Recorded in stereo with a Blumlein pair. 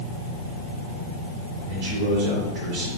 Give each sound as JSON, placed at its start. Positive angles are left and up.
{"t": 1.7, "sound": "a man speaking", "azimuth_deg": -35, "distance_m": 4.0}